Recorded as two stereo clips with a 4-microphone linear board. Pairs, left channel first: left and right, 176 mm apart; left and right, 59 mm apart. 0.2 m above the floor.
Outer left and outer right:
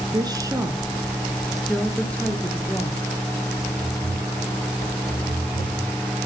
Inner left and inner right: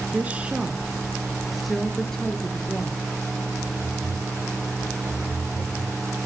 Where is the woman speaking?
25° right (ahead or behind), 2.5 m; by 3.0 s 15° left (ahead or behind), 4.5 m.